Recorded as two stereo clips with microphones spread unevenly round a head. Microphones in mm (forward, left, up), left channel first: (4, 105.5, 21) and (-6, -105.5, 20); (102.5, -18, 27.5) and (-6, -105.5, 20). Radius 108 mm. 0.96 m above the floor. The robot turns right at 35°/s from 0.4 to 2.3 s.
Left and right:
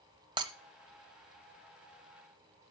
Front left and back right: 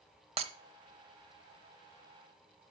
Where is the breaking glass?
150° right, 0.9 m; by 0.5 s 145° right, 0.9 m.